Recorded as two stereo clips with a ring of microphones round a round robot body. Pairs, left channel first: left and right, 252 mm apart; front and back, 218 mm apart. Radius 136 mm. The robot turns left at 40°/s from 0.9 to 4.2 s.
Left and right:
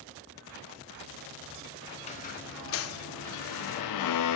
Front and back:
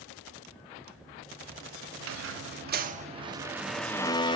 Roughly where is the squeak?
Behind.